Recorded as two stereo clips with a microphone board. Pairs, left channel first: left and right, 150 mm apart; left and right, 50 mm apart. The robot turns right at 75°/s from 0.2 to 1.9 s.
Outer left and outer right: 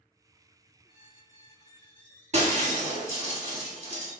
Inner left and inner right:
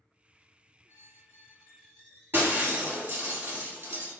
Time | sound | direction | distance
0.9 | a squeak | 85° left | 1.0 m
2.3 | breaking glass | 50° right (ahead or behind) | 1.5 m